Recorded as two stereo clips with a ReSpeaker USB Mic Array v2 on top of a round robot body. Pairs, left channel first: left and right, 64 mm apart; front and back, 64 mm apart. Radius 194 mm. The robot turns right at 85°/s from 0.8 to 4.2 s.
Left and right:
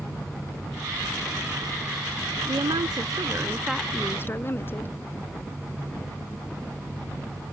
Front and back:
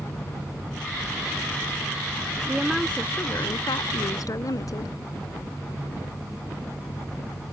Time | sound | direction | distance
2.5 | a woman speaking | 115° right | ?